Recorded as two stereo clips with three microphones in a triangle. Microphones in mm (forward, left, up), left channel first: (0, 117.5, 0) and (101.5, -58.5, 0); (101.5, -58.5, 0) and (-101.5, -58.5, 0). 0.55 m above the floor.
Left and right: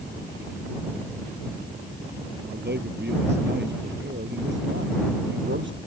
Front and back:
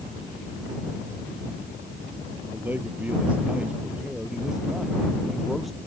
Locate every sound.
2.5 s a man speaking: 100° right; by 5.8 s 90° right